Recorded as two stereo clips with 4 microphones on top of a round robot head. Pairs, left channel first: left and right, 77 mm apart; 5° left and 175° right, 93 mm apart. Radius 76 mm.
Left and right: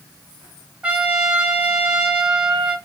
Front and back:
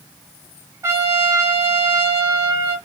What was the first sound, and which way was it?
A trumpet, 150° right.